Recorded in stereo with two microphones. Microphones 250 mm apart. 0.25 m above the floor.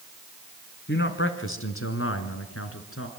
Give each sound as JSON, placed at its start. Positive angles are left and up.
{"t": 0.9, "sound": "a man speaking", "side_deg": 45, "distance_m": 3.0}